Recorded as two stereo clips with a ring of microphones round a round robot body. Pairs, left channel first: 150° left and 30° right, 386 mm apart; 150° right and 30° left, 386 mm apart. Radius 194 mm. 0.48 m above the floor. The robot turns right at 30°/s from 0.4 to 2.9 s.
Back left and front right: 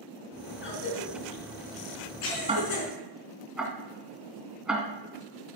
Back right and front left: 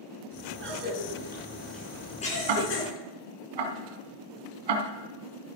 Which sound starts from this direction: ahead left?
Ticking, at 2.5 s.